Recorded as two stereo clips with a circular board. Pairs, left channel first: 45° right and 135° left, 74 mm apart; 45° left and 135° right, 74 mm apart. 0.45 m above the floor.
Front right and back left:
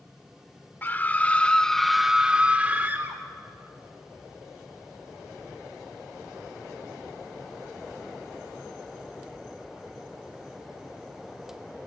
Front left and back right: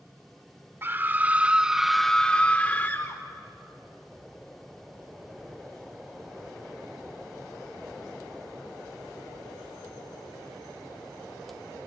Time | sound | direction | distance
0.8 | a scream | 90° right | 0.9 m